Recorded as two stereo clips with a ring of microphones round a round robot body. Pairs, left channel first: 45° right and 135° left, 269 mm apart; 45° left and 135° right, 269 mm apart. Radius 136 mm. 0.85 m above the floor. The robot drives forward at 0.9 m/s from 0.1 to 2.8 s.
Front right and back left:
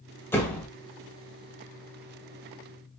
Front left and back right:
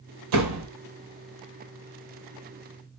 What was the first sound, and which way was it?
A door slam, 125° right.